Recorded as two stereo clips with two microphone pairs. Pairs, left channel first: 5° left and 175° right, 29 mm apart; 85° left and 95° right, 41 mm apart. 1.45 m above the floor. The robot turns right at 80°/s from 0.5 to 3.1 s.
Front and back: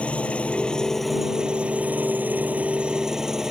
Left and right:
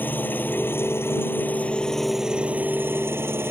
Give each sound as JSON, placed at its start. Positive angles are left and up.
{"t": 0.0, "sound": "an engine running", "azimuth_deg": 50}